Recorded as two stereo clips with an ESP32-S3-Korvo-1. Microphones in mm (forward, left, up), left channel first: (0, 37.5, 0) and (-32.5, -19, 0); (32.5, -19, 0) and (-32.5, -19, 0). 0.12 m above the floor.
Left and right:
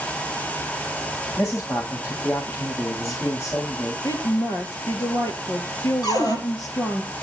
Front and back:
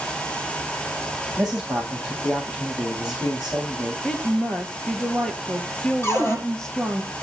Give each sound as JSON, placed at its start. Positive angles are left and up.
{"t": 1.4, "sound": "a man speaking", "azimuth_deg": 105, "distance_m": 10.0}
{"t": 4.0, "sound": "a woman speaking", "azimuth_deg": 80, "distance_m": 2.5}
{"t": 6.0, "sound": "a cupboard door", "azimuth_deg": 55, "distance_m": 4.5}